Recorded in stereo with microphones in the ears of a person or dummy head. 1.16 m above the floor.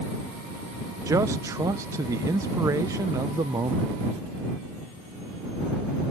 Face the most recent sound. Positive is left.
turn(degrees=-15)  # may be behind; listen again after turning